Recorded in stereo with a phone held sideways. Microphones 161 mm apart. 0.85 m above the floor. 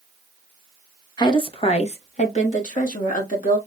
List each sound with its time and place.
1.2 s a woman speaking: 25° left (ahead or behind), 0.7 m; by 3.6 s 55° left (ahead or behind), 1.6 m